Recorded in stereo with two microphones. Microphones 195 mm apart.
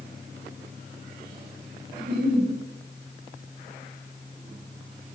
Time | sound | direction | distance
2.0 | a giggle | 55° right (ahead or behind) | 5.5 m